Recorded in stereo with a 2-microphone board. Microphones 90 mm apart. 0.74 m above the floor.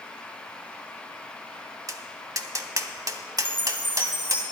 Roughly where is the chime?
Right.